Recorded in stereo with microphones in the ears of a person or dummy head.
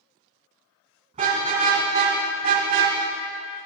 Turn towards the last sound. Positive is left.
turn(degrees=-55)  # may be behind; listen again after turning